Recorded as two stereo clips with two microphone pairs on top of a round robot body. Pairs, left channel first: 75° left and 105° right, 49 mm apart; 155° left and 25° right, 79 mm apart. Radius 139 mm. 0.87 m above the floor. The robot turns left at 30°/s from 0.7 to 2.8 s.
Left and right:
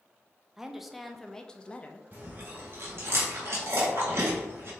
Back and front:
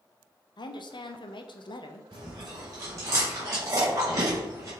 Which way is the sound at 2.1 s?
55° right.